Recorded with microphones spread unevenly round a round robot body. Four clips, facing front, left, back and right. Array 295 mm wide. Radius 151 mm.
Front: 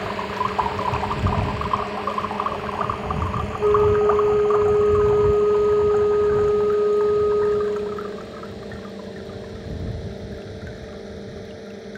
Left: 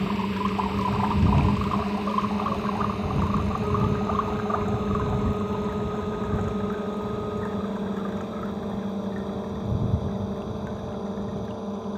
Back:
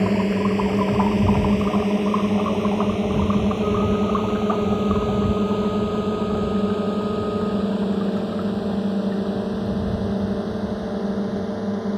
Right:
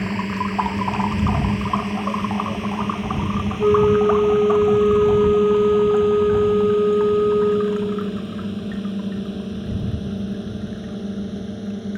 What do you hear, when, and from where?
0.0 s a drone: 160° right; by 12.0 s 150° right
3.6 s a flute: 60° right